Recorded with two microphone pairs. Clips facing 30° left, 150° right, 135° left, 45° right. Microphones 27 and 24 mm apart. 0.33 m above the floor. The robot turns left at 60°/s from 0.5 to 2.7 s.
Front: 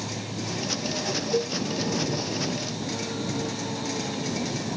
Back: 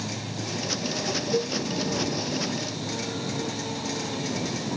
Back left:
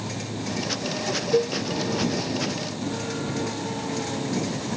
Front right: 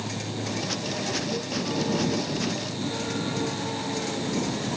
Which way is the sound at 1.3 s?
120° left.